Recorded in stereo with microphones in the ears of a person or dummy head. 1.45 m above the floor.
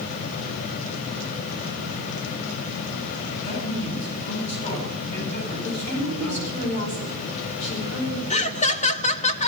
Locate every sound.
3.4 s a man speaking: 30° left (ahead or behind), 10 m
5.6 s a woman speaking: 40° left (ahead or behind), 5.5 m
8.3 s laughter: 35° left (ahead or behind), 1.1 m